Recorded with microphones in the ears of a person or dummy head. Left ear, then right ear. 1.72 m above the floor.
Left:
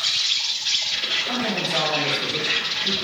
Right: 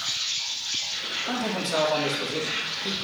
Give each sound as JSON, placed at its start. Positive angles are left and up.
{"t": 0.0, "sound": "an insect", "side_deg": 35, "distance_m": 3.0}
{"t": 1.3, "sound": "a man speaking", "side_deg": -75, "distance_m": 2.0}